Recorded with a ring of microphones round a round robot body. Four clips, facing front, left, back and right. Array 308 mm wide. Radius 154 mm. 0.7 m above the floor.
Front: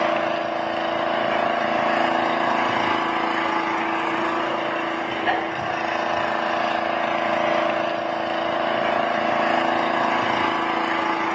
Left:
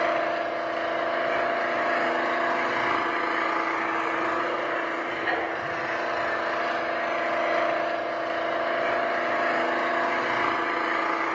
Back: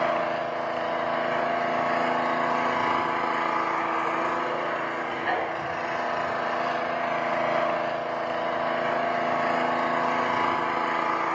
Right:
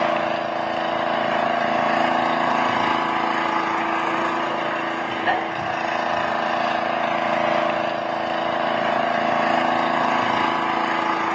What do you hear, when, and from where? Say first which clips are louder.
0.0 s an engine running: right 4 dB, front 4 dB; 55° right, 2.5 m